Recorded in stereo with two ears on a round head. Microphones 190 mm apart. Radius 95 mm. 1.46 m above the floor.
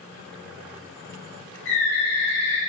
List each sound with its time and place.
1.6 s a bird: 60° left (ahead or behind), 2.5 m